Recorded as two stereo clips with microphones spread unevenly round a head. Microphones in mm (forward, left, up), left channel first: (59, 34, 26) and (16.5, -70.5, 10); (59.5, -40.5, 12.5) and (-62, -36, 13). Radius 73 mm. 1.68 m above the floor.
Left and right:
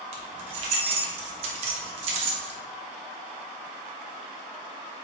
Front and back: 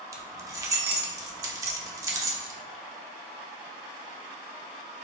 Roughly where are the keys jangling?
Behind right.